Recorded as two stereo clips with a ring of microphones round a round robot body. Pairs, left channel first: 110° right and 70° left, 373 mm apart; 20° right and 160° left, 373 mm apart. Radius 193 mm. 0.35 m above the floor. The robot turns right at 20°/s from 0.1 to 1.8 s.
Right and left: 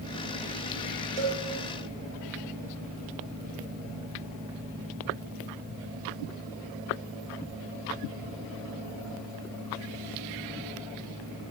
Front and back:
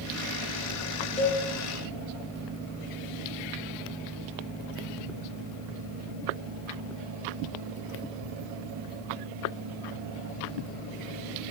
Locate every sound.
1.2 s a cowbell: 50° left, 2.5 m; by 1.4 s 55° left, 2.5 m